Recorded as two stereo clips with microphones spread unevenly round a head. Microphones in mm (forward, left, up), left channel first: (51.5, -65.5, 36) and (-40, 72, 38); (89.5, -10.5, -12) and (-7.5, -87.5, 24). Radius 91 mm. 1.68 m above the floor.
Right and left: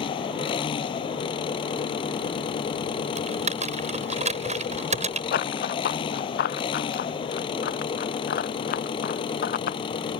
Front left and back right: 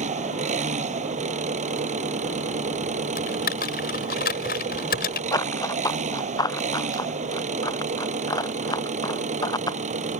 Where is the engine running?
120° right.